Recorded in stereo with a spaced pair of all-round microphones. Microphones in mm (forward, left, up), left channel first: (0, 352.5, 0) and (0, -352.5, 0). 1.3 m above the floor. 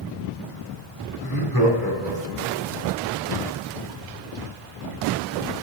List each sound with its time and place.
1.2 s laughter: 30° left (ahead or behind), 4 m